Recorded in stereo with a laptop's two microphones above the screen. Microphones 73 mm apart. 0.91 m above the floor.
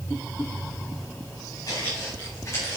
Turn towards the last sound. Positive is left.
turn(degrees=45)  # may be behind; listen again after turning